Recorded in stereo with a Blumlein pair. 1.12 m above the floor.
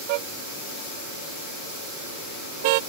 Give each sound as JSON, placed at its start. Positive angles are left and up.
{"t": 0.1, "sound": "a car horn", "azimuth_deg": -45}